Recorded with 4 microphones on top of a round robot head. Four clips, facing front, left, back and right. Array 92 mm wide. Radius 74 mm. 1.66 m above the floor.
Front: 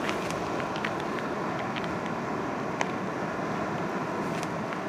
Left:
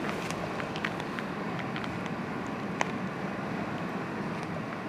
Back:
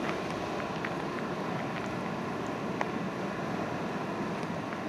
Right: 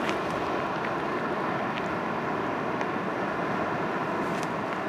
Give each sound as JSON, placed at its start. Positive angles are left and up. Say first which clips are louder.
{"t": 0.0, "sound": "running water", "louder": "right 6 dB, front 3 dB", "azimuth_deg": -70, "distance_m": 1.7}